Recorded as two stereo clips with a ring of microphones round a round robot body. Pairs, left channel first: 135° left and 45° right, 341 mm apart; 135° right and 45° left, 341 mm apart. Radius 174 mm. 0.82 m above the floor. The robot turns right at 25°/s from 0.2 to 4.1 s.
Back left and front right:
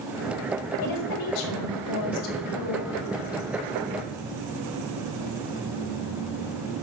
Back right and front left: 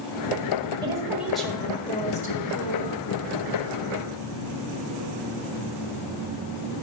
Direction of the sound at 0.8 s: 120° left.